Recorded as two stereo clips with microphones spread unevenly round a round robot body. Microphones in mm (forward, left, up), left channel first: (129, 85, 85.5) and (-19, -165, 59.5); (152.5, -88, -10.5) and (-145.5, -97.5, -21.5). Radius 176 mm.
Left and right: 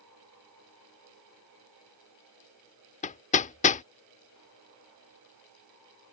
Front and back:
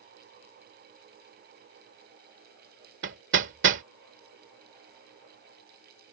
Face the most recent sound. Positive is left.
turn(degrees=125)